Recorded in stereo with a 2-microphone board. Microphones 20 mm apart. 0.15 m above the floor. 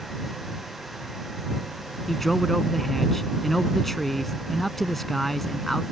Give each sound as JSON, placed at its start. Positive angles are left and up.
{"t": 2.1, "sound": "a man speaking", "side_deg": 15}